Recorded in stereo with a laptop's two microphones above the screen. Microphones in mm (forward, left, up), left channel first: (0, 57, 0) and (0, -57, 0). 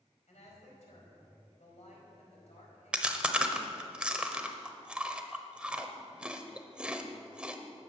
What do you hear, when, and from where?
0.3 s a woman speaking: 75° left (ahead or behind), 4.5 m
2.9 s chewing: 10° right (ahead or behind), 0.9 m